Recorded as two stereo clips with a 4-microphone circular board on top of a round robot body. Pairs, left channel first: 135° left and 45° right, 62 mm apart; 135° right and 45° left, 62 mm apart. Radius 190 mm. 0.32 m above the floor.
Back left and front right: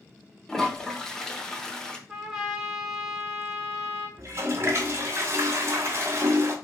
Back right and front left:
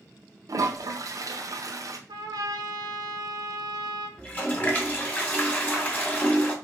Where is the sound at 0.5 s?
55° left, 1.1 m.